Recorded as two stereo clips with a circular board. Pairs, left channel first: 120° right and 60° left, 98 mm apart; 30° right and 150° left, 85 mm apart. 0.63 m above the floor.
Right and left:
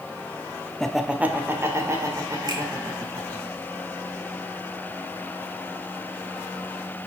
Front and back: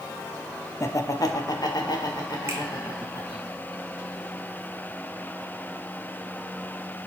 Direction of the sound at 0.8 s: 45° right.